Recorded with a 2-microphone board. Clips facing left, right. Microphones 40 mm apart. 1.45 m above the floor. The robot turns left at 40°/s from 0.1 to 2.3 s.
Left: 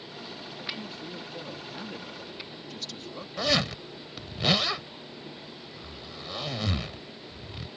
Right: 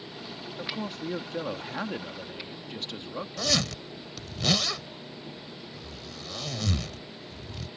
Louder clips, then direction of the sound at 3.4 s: Left 3 dB; 20° left (ahead or behind).